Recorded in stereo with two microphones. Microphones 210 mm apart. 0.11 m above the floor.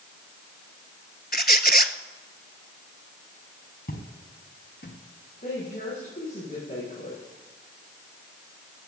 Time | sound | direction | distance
1.3 | a squeak | 50° left (ahead or behind) | 0.7 m
3.9 | footsteps | 45° left (ahead or behind) | 4.5 m
5.4 | a woman speaking | 45° left (ahead or behind) | 7.5 m